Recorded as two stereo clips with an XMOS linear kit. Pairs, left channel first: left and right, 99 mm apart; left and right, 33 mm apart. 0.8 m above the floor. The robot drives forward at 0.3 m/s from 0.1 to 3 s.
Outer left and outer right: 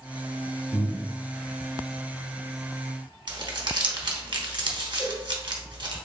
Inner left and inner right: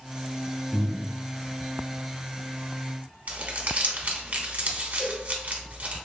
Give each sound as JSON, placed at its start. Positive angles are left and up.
{"t": 0.7, "sound": "breathing", "side_deg": 65, "distance_m": 1.1}
{"t": 3.3, "sound": "crumpling", "side_deg": -55, "distance_m": 1.1}
{"t": 5.0, "sound": "a cowbell", "side_deg": -10, "distance_m": 2.0}